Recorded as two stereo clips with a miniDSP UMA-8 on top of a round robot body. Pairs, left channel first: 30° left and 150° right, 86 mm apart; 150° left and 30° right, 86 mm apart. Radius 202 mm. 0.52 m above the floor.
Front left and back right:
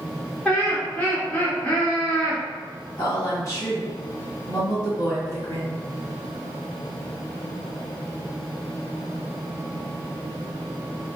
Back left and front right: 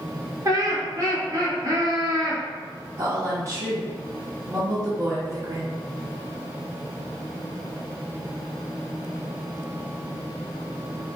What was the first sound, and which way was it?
Laughter, 35° right.